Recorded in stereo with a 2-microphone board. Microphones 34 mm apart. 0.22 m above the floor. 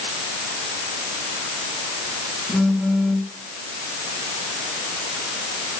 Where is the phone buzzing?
10° right (ahead or behind), 2.5 m.